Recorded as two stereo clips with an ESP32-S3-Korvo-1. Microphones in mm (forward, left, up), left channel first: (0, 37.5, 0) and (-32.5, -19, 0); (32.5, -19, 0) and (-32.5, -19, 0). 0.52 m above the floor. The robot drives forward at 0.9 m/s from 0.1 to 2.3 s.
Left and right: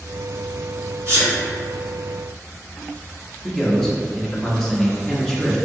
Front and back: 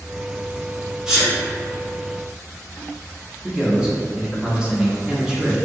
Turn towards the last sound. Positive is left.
turn(degrees=130)